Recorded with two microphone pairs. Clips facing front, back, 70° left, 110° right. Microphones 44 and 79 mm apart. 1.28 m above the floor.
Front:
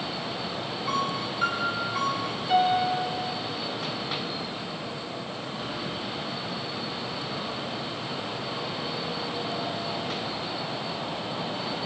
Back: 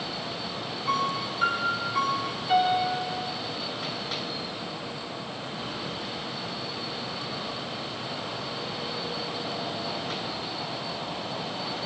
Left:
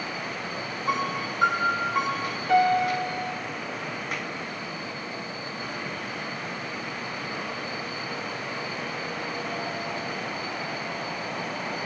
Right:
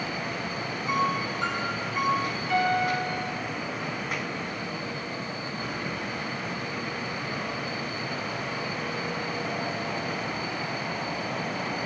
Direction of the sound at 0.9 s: 90° left.